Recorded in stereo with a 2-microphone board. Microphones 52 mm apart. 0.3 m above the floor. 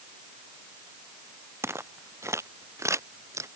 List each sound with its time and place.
1.6 s footsteps: 55° right (ahead or behind); by 3.5 s 70° right (ahead or behind)